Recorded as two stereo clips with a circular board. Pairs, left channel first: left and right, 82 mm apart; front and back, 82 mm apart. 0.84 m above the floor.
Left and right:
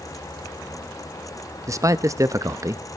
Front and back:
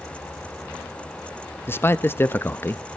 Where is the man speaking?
55° right, 0.8 m.